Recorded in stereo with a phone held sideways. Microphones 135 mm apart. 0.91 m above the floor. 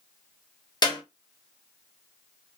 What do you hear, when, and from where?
0.8 s a clap: 35° left (ahead or behind), 1.0 m